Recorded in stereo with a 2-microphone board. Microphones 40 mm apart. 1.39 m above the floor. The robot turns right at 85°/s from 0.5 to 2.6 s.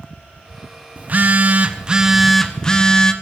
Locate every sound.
1.0 s a phone buzzing: 115° right, 1.0 m; by 3.1 s 25° left, 1.0 m